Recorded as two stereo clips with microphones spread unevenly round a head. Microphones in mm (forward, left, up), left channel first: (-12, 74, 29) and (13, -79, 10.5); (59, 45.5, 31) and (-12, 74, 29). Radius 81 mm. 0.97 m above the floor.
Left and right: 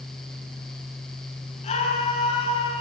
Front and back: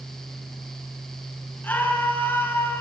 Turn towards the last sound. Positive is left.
turn(degrees=40)